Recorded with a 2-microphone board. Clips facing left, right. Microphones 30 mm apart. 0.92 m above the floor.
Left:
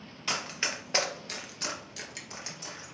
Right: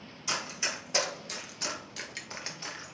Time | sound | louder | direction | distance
0.3 | running footsteps | left 1 dB | 45° left (ahead or behind) | 1.2 m